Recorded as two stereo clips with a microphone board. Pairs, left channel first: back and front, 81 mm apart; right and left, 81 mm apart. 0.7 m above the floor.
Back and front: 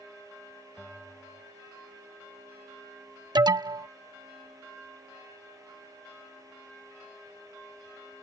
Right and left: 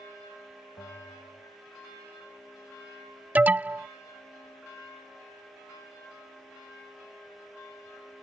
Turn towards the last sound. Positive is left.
turn(degrees=20)